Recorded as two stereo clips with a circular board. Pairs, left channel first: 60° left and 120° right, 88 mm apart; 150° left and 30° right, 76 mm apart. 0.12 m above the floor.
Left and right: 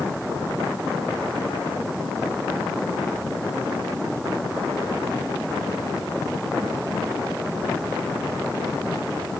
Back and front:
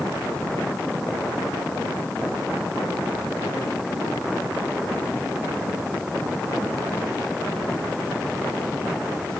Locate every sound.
Only background noise.